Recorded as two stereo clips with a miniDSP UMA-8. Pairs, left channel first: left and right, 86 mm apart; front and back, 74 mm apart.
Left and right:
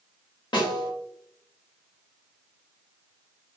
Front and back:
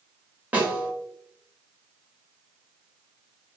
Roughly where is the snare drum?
Left.